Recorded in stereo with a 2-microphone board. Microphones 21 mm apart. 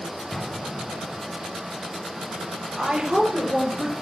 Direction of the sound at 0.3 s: 30° left (ahead or behind).